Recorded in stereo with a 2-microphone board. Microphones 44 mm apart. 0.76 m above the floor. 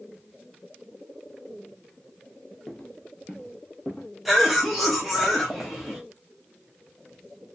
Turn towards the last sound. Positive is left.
turn(degrees=0)  # may be behind; listen again after turning